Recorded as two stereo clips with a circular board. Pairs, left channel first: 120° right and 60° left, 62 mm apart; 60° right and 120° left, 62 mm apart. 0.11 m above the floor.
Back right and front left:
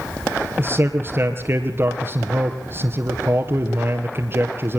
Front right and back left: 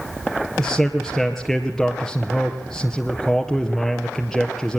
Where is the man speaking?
25° left, 2 m.